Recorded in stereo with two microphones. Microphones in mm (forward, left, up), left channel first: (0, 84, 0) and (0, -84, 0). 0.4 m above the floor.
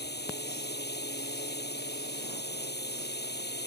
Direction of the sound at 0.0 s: 80° left.